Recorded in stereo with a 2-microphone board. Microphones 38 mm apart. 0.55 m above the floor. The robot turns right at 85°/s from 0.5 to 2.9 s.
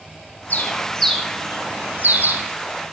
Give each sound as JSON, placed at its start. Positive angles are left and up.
{"t": 0.5, "sound": "a bird", "side_deg": 45, "distance_m": 3.5}